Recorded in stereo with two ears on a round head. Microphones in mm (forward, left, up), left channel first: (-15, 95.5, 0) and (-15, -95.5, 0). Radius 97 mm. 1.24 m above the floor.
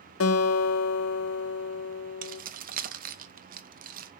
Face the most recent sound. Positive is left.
turn(degrees=-45)  # may be behind; listen again after turning